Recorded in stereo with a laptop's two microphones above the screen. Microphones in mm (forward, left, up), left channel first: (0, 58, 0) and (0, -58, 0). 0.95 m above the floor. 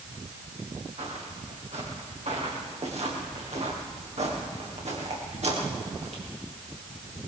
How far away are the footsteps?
About 6.5 m.